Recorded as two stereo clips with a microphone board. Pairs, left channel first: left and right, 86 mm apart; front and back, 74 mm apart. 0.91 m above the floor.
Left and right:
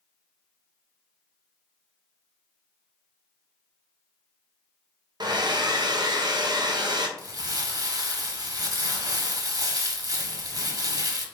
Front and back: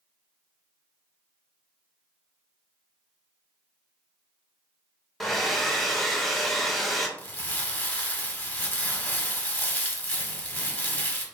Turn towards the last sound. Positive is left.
turn(degrees=-65)